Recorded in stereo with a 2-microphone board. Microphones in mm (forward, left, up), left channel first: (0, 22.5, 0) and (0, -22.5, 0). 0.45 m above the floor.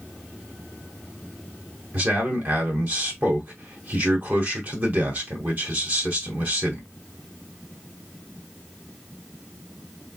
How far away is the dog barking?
No dog barking in this recording.